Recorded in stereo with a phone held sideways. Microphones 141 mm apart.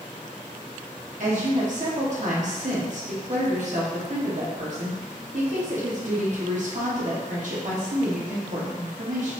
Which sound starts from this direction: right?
A woman speaking, at 1.2 s.